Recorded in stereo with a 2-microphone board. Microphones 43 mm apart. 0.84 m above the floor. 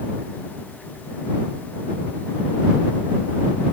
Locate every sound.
Only background noise.